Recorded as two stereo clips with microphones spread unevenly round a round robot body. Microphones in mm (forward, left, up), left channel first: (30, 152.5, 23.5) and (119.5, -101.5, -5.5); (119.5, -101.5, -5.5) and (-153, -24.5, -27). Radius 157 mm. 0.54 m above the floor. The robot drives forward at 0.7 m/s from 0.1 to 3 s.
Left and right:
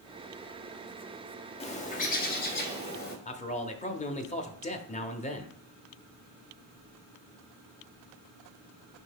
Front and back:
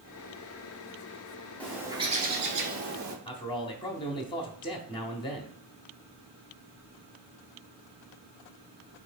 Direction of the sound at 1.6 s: 75° left.